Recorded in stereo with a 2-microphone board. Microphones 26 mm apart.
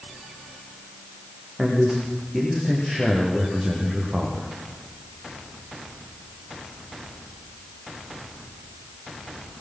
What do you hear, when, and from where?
1.6 s a man speaking: 30° right (ahead or behind), 9 m; by 4.5 s 25° right (ahead or behind), 7.5 m